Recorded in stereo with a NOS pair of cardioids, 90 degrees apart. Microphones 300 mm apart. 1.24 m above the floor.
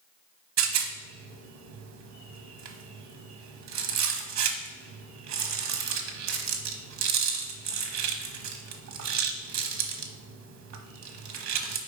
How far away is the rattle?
About 1.0 m.